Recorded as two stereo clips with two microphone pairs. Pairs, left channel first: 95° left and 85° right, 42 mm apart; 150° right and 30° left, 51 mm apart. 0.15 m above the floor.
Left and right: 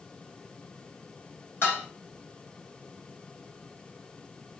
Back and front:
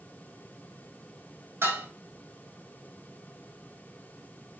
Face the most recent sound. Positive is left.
turn(degrees=60)